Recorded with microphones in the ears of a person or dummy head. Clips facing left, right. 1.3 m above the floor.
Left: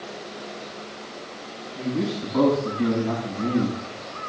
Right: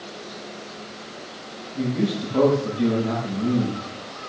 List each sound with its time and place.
1.8 s a man speaking: 55° right (ahead or behind), 10 m; by 3.8 s 50° right (ahead or behind), 8 m